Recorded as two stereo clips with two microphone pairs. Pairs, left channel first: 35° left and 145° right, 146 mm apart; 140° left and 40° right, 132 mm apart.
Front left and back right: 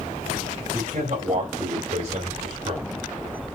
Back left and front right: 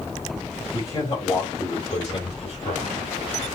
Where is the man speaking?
160° right, 4 m; by 3.1 s 165° left, 2 m.